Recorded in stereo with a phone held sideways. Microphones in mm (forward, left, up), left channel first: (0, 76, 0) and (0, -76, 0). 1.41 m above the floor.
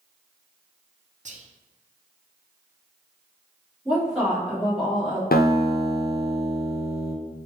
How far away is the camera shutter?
No camera shutter in this recording.